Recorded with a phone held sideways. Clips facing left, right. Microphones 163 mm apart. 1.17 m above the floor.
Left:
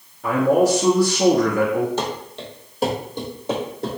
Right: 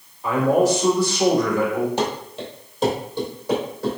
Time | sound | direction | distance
0.2 | a man speaking | 60° left (ahead or behind) | 2 m
2.0 | running footsteps | 20° right (ahead or behind) | 1.3 m